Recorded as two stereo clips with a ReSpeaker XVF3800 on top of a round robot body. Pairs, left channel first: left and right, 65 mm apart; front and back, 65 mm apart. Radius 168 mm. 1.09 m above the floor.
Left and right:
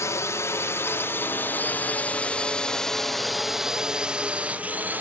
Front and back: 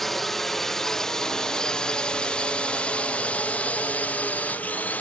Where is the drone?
85° left; by 5.0 s 50° right.